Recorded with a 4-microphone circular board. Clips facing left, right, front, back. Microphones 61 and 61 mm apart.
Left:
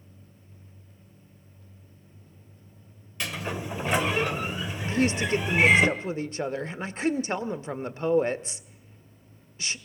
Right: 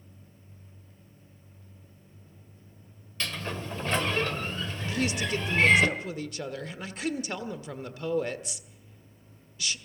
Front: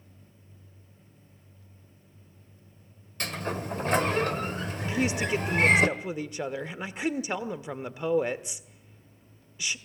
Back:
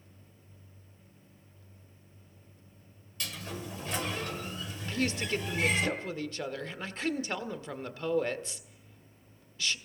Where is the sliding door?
15° left, 1.6 m.